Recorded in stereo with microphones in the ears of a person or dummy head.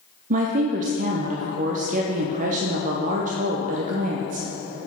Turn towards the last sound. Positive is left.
turn(degrees=-45)  # may be behind; listen again after turning